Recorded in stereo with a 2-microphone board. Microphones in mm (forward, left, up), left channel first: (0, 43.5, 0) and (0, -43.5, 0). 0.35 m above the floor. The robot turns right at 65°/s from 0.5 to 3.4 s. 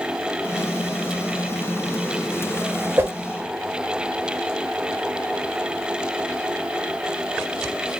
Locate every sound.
3.0 s a whoosh: 25° right (ahead or behind), 0.9 m; by 3.1 s 20° right (ahead or behind), 0.9 m